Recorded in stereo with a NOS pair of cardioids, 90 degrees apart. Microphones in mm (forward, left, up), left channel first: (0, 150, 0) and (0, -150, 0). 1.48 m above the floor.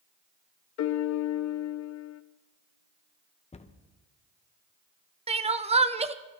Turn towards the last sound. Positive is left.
turn(degrees=-20)